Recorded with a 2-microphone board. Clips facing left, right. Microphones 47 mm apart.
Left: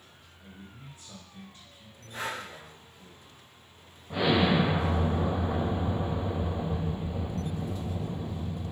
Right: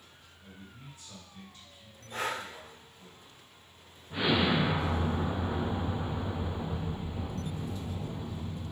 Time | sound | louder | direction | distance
0.4 | a man speaking | left 2 dB | 30° left (ahead or behind) | 1.6 m
2.1 | breathing | right 1 dB | 50° right (ahead or behind) | 1.1 m
4.1 | an explosion | left 3 dB | 75° left (ahead or behind) | 1.5 m